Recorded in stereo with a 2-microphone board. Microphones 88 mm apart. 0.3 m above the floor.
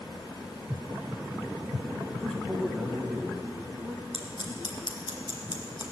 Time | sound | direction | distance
2.1 | a man speaking | 5° left (ahead or behind) | 1.8 m
4.1 | scissors | 65° left (ahead or behind) | 2.5 m